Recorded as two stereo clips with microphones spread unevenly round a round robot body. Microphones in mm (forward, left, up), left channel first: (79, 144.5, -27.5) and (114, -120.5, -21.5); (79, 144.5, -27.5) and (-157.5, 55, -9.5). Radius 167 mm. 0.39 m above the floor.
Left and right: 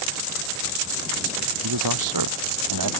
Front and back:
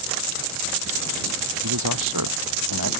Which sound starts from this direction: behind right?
A man speaking, at 1.6 s.